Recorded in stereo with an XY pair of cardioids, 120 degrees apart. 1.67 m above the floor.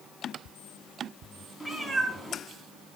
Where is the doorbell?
I don't hear a doorbell.